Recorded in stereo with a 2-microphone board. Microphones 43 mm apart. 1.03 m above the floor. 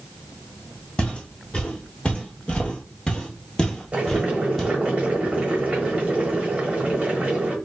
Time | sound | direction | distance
1.0 | footsteps | 20° left (ahead or behind) | 1.6 m
3.9 | boiling | 30° right (ahead or behind) | 1.3 m